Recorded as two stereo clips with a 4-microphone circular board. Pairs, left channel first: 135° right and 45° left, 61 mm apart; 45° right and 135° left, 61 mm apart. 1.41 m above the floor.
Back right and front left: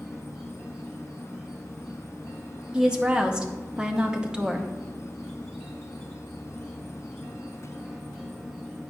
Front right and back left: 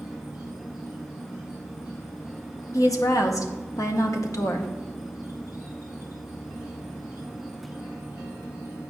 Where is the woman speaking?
30° right, 0.7 m.